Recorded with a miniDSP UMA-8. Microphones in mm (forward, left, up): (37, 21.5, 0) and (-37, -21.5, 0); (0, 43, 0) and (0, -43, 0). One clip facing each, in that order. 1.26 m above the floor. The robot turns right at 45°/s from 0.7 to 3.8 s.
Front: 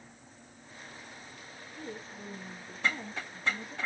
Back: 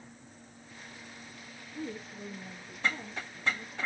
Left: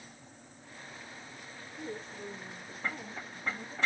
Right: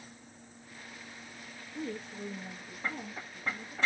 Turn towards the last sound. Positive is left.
turn(degrees=20)